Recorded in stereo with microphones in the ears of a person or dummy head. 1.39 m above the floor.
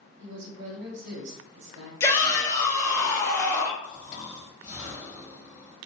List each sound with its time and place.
0.2 s a woman speaking: 70° right (ahead or behind), 0.9 m
2.0 s a shout: 20° left (ahead or behind), 0.8 m
3.8 s snoring: 20° left (ahead or behind), 1.4 m